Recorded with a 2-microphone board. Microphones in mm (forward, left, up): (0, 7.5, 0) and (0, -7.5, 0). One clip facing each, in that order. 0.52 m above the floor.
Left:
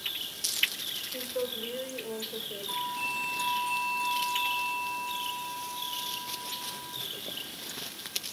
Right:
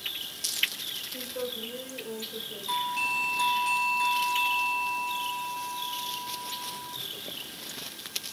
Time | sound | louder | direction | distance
1.1 | a woman speaking | left 1 dB | 35° left (ahead or behind) | 2.5 m
2.7 | a doorbell | right 5 dB | 30° right (ahead or behind) | 1.2 m